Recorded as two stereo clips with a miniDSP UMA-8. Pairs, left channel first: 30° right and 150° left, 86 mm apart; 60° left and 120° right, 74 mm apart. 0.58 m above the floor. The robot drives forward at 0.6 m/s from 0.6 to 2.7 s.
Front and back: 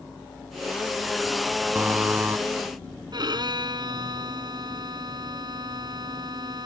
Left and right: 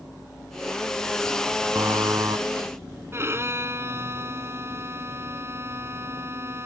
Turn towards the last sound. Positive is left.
turn(degrees=-175)